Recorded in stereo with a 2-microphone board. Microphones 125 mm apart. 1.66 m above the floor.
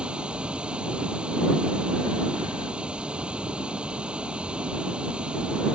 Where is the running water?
10° right (ahead or behind).